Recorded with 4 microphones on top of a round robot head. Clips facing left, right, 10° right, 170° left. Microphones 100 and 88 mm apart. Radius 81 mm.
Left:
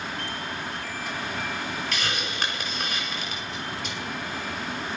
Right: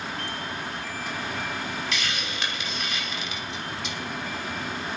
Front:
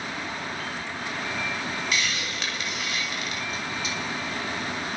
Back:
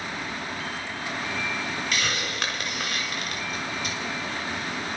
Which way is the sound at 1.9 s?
135° left.